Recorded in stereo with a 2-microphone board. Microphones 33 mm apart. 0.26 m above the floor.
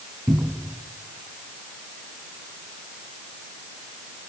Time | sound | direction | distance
0.3 | a cupboard door | 55° right (ahead or behind) | 2.5 m